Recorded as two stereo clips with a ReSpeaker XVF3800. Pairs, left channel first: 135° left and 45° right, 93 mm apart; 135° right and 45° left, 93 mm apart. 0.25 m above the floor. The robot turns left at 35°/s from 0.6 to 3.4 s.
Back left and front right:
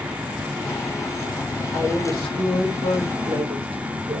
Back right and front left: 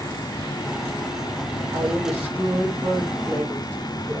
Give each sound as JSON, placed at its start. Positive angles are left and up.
{"t": 1.7, "sound": "a woman speaking", "azimuth_deg": 0, "distance_m": 9.5}